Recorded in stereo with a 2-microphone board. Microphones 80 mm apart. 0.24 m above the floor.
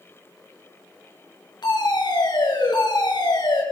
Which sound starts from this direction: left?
A fire alarm, at 1.6 s.